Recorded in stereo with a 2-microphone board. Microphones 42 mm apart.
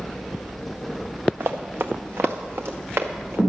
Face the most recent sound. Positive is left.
turn(degrees=-90)